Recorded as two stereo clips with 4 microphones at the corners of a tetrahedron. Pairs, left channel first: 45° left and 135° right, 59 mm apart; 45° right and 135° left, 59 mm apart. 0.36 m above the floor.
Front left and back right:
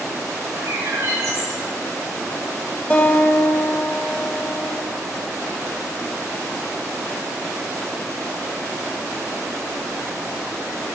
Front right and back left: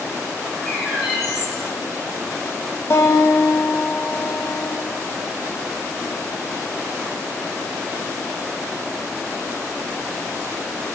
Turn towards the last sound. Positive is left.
turn(degrees=-15)